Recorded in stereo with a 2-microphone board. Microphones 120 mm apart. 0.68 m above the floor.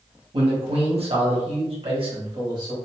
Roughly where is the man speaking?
Right.